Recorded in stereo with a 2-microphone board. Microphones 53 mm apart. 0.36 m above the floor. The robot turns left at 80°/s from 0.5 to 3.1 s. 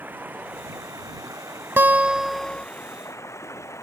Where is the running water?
35° right; by 3.9 s 115° left.